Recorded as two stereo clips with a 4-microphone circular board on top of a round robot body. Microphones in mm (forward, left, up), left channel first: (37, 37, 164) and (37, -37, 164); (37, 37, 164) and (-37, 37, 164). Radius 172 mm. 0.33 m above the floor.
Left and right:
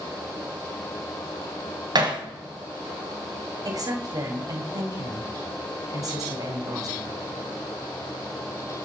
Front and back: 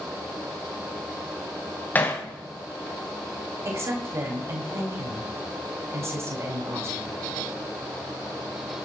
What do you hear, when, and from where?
1.9 s hammering: 65° right, 3.5 m
3.6 s a woman speaking: 125° right, 4 m